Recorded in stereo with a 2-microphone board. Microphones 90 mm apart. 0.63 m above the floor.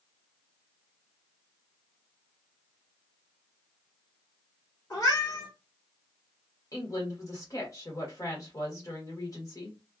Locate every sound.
4.9 s a cat meowing: 45° left (ahead or behind), 1.9 m
6.7 s a woman speaking: 40° left (ahead or behind), 1.4 m